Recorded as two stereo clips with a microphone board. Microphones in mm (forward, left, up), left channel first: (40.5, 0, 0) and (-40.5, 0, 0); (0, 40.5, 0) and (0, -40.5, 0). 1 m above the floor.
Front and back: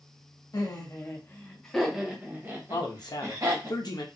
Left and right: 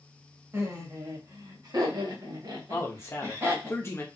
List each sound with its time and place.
0.5 s laughter: 40° right, 1.1 m; by 3.7 s 140° right, 1.6 m
2.7 s a man speaking: 35° left, 0.8 m